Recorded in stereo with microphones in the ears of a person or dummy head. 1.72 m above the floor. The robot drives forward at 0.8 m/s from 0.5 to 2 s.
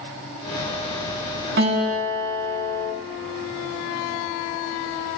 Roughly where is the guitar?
Right.